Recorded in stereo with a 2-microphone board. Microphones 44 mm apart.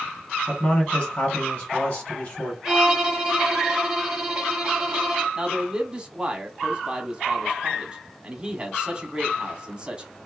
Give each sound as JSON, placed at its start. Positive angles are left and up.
{"t": 0.5, "sound": "a man speaking", "side_deg": 40, "distance_m": 1.5}
{"t": 2.6, "sound": "a violin", "side_deg": -15, "distance_m": 1.1}
{"t": 5.3, "sound": "a man speaking", "side_deg": -20, "distance_m": 1.1}